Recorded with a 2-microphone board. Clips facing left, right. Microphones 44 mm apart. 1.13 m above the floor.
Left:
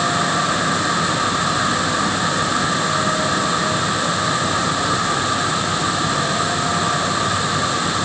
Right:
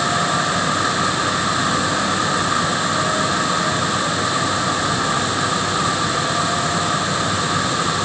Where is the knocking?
I don't hear knocking.